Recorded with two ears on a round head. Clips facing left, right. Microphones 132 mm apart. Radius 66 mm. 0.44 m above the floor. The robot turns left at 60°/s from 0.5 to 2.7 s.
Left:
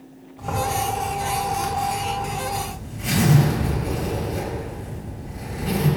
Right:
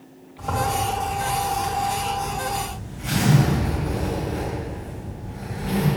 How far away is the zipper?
About 3 m.